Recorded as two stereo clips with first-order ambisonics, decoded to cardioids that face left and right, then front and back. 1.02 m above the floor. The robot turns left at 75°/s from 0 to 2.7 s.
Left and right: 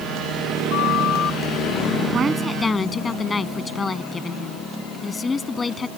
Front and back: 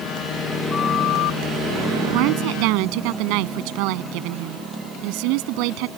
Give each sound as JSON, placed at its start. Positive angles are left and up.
{"t": 0.7, "sound": "a flute", "azimuth_deg": 75}
{"t": 2.1, "sound": "a woman speaking", "azimuth_deg": -150}